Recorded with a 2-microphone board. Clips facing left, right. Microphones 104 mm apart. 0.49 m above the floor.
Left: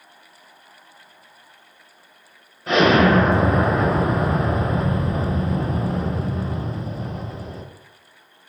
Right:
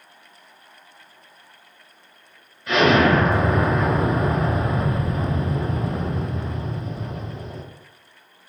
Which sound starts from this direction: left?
An explosion, at 2.7 s.